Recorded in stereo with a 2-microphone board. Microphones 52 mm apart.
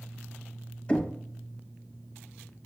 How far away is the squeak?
No squeak in this recording.